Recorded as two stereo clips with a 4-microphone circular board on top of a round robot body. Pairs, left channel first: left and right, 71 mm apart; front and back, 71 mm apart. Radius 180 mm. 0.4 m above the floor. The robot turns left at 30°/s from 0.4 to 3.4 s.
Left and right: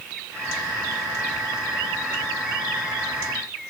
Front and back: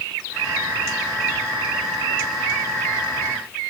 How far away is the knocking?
No knocking in this recording.